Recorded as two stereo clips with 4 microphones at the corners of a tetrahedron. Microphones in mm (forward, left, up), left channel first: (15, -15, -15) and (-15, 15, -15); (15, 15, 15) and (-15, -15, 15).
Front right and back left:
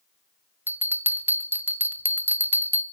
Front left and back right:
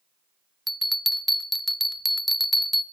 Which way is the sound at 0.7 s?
135° left.